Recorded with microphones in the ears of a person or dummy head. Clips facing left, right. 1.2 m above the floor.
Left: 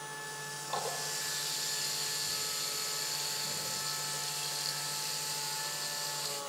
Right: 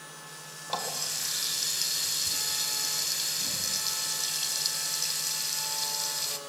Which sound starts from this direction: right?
A running tap, at 0.7 s.